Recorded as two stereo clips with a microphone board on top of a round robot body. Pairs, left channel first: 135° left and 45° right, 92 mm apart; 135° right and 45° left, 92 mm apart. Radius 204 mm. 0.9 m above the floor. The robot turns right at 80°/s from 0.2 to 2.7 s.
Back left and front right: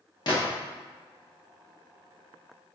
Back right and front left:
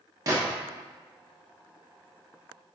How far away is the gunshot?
About 0.9 m.